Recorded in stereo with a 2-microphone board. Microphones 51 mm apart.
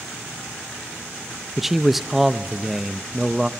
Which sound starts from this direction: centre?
A man speaking, at 1.6 s.